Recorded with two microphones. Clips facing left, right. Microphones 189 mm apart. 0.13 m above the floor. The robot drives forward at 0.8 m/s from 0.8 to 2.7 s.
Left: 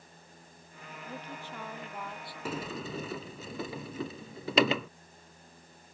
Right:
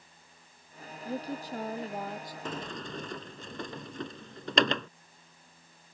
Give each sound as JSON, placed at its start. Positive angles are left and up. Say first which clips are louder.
{"t": 1.1, "sound": "a woman speaking", "louder": "right 9 dB", "side_deg": -35}
{"t": 2.5, "sound": "a sliding door", "louder": "left 3 dB", "side_deg": 10}